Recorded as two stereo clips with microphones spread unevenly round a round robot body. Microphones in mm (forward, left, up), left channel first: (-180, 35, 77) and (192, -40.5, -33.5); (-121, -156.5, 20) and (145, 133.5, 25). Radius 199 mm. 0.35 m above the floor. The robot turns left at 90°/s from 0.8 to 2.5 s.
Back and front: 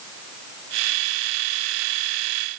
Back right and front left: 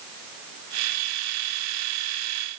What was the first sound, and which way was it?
Only background noise.